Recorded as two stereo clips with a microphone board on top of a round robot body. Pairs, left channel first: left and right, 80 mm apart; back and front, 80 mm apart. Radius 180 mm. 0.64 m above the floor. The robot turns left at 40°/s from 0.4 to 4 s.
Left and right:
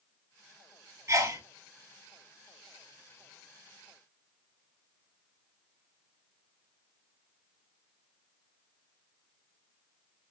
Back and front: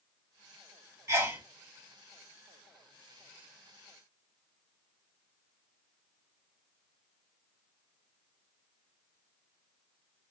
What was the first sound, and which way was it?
A sneeze, 50° right.